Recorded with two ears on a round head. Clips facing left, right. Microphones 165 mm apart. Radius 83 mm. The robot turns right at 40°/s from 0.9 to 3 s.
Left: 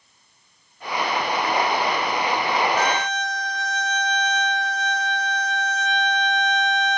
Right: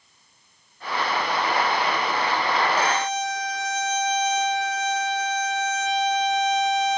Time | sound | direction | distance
2.8 | a violin | 10° right (ahead or behind) | 1.0 m